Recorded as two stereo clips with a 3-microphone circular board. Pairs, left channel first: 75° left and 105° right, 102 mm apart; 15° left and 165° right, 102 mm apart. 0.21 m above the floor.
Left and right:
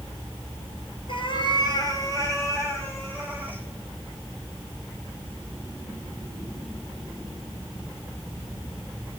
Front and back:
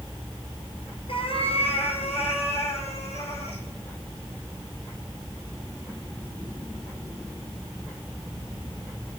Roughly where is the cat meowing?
Ahead left.